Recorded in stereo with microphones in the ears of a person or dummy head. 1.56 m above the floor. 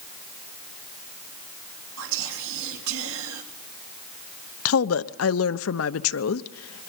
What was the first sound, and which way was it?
Whispering, 75° right (ahead or behind).